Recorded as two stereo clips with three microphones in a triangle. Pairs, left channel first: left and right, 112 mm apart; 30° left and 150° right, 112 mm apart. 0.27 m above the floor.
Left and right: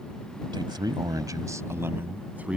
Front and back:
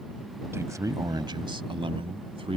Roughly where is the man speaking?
Right.